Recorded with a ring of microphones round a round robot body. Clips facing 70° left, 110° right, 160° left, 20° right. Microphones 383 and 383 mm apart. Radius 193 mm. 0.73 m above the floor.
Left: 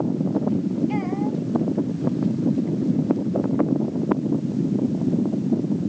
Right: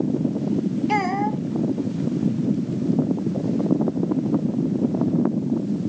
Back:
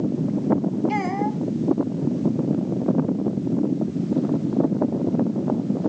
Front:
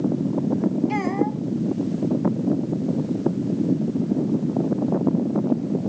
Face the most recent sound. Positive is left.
turn(degrees=-120)